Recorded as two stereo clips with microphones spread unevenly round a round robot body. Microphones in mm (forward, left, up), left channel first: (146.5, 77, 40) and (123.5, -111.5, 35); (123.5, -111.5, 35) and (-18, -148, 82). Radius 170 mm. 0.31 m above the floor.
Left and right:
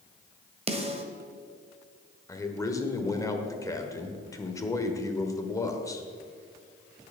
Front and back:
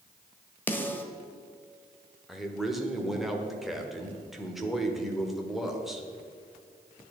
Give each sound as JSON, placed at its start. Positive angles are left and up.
{"t": 0.7, "sound": "a snare drum", "azimuth_deg": -45, "distance_m": 1.5}
{"t": 2.3, "sound": "a man speaking", "azimuth_deg": 45, "distance_m": 1.2}